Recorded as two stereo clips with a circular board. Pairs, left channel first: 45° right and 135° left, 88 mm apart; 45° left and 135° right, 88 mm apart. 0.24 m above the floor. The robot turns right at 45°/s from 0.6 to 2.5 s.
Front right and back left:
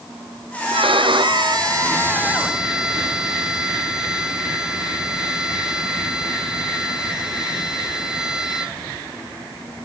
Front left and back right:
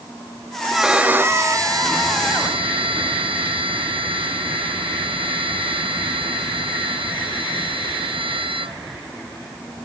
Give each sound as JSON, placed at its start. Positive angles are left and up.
{"t": 0.7, "sound": "a violin", "azimuth_deg": 135}